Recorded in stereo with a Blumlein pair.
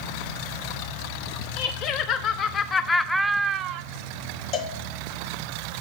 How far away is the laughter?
About 1.1 m.